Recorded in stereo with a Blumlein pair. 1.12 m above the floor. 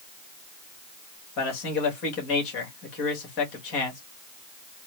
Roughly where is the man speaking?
Ahead left.